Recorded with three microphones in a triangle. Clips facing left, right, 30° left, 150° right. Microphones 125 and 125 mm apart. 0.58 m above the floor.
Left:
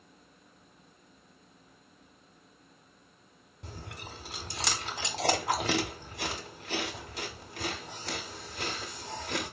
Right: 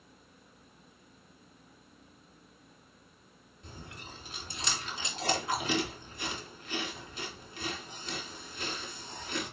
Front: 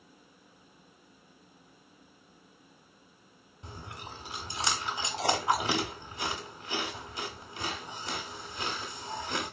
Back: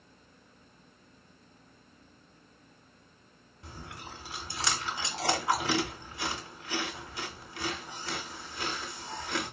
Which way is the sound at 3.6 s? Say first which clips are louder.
Left 3 dB, front 1 dB; 100° left.